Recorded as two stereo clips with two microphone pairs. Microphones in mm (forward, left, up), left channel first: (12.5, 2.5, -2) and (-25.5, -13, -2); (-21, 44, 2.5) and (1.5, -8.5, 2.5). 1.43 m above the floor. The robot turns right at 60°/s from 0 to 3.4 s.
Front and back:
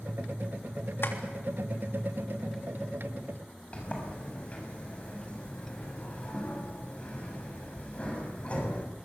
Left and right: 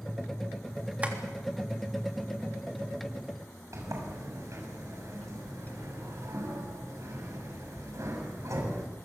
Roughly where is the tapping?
Ahead.